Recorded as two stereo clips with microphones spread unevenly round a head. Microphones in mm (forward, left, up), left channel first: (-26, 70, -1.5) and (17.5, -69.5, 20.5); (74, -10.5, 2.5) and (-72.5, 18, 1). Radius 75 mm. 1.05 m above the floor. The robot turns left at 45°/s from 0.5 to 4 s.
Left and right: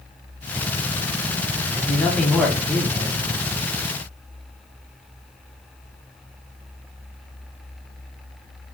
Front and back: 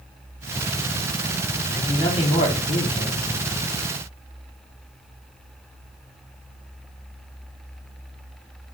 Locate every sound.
1.7 s a man speaking: 55° left, 0.8 m; by 3.2 s 15° right, 0.8 m